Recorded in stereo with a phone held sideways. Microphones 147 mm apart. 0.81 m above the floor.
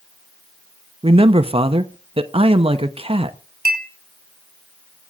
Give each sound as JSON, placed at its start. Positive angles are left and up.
{"t": 1.0, "sound": "a man speaking", "side_deg": -40, "distance_m": 0.8}
{"t": 3.6, "sound": "a clink", "side_deg": -80, "distance_m": 3.5}